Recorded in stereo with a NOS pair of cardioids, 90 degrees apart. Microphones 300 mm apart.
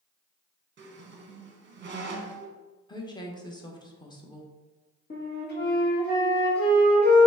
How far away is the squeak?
About 0.9 m.